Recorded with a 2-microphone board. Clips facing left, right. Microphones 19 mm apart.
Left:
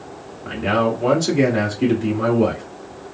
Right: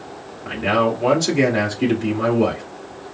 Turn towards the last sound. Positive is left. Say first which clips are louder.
# right 1 dB
turn(degrees=-10)  # may be behind; listen again after turning